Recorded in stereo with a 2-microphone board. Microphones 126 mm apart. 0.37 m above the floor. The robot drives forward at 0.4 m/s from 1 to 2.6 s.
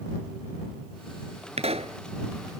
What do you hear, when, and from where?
1.6 s a pop: 60° right (ahead or behind); by 2.0 s 55° right (ahead or behind)